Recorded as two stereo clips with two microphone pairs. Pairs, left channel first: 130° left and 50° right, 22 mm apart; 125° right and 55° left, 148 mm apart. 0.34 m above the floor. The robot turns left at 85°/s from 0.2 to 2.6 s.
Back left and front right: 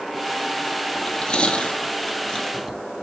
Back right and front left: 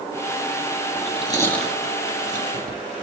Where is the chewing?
160° right, 2.5 m; by 2.8 s 60° left, 2.5 m.